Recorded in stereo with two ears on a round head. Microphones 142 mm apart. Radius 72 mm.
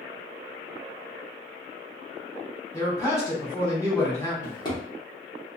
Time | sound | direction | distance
2.7 | a man speaking | 20° left (ahead or behind) | 1.0 m
4.4 | a drawer | 30° left (ahead or behind) | 1.0 m